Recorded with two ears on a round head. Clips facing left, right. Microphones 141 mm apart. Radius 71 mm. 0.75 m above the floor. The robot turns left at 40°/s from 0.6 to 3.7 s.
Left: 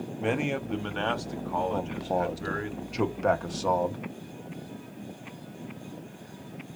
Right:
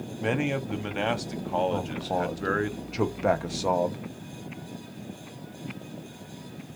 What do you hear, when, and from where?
0.2 s a man speaking: straight ahead, 0.9 m; by 2.7 s 85° right, 0.9 m
1.7 s a man speaking: 15° left (ahead or behind), 0.8 m; by 4.0 s 10° right (ahead or behind), 0.8 m